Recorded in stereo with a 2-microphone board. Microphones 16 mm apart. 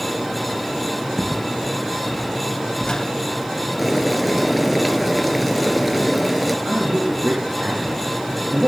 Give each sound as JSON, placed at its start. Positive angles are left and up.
{"t": 1.2, "sound": "footsteps", "side_deg": 15, "distance_m": 2.5}
{"t": 3.8, "sound": "boiling", "side_deg": -5, "distance_m": 1.4}
{"t": 6.7, "sound": "a man speaking", "side_deg": -80, "distance_m": 6.5}